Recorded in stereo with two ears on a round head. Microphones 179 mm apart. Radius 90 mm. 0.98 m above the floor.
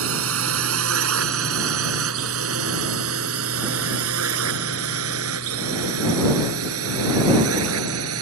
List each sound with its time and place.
0.0 s a drone: 75° right (ahead or behind); by 8.2 s 85° right